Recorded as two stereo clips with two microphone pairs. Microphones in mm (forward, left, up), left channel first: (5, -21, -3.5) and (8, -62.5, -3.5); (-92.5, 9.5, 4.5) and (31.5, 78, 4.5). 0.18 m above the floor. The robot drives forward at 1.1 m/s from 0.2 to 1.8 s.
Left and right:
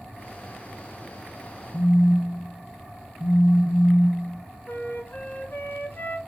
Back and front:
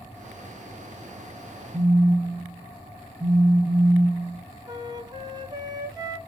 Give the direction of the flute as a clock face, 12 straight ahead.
9 o'clock.